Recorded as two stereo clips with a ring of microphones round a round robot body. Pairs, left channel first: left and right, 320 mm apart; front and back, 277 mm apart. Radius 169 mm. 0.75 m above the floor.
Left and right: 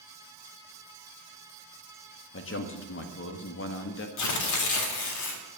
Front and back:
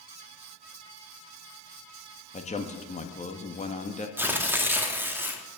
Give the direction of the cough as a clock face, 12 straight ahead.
I don't hear a cough.